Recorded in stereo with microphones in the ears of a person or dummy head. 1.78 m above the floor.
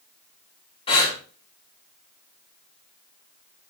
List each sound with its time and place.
0.9 s breathing: 20° left (ahead or behind), 2.5 m